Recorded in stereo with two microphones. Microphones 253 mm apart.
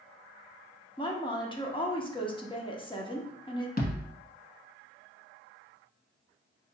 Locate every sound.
1.0 s a woman speaking: 20° left (ahead or behind), 0.9 m
3.8 s a thud: 35° left (ahead or behind), 1.1 m